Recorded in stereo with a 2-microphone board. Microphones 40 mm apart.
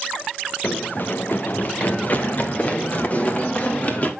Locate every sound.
0.6 s running footsteps: 60° left (ahead or behind), 1.0 m; by 4.1 s 40° left (ahead or behind), 3 m